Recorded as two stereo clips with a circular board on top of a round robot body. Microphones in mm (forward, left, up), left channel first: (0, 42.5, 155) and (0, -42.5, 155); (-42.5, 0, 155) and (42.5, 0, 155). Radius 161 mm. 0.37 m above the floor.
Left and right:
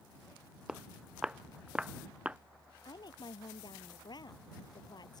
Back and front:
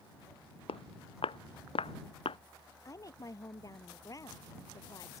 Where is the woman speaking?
130° left.